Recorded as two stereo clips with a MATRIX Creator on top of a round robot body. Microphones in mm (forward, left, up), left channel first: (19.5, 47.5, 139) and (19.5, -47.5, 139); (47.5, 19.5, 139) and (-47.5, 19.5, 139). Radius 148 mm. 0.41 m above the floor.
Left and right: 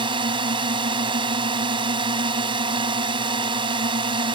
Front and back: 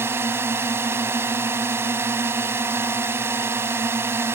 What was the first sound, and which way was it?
A drone, 115° right.